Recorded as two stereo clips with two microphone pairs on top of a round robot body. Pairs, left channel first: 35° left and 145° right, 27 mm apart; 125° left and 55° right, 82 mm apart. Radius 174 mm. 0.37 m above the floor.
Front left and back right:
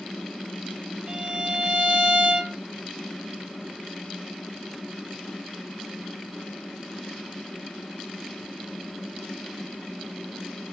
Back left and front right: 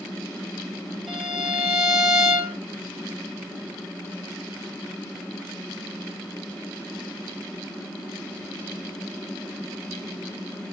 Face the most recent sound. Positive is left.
turn(degrees=-145)